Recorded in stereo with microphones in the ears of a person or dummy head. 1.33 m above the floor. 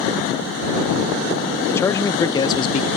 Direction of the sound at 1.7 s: 10° left (ahead or behind).